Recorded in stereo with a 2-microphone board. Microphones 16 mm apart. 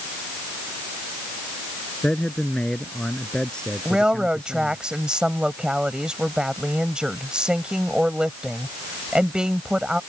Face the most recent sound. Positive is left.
turn(degrees=-75)  # may be behind; listen again after turning